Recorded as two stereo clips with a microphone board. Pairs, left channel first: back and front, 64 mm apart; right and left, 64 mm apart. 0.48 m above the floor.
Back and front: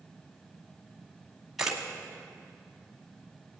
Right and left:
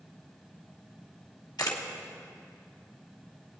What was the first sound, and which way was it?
A camera shutter, 85° right.